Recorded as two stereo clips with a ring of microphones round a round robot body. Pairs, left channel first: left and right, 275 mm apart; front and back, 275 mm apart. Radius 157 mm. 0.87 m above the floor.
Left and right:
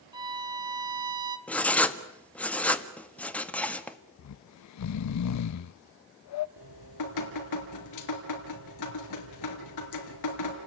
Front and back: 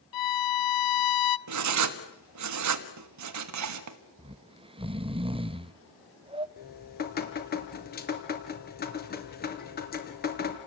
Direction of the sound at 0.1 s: 15° right.